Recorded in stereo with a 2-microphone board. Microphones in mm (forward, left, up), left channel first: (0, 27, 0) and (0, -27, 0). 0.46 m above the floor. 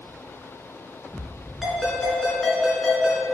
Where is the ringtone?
5° left (ahead or behind), 3.5 m.